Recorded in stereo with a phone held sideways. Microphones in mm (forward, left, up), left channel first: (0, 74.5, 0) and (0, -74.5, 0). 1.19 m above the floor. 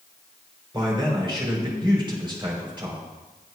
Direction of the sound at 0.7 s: 35° right (ahead or behind).